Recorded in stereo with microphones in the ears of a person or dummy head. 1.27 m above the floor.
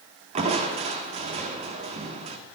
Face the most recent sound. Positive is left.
turn(degrees=-35)  # may be behind; listen again after turning